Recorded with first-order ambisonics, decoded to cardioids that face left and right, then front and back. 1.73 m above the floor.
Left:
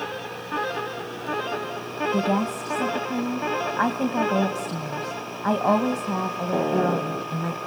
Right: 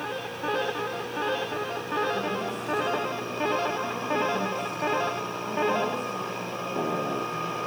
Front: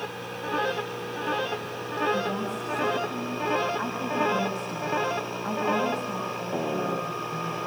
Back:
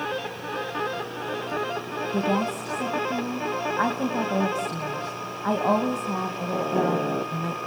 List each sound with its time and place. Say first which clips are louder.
2.1 s a woman speaking: left 5 dB, back 3 dB; 125° left, 2.5 m